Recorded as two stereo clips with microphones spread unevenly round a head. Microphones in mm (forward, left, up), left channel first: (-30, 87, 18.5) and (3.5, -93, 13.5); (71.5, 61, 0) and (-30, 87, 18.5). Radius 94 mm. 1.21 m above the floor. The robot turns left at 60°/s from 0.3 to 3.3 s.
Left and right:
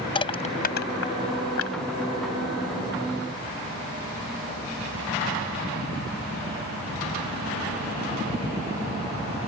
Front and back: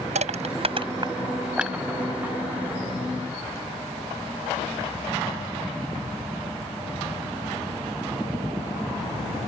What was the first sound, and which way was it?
Crushing, 165° left.